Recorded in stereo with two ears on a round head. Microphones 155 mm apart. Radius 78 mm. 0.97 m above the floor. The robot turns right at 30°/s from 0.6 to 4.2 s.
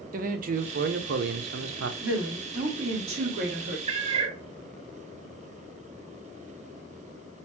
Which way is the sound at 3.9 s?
30° right (ahead or behind).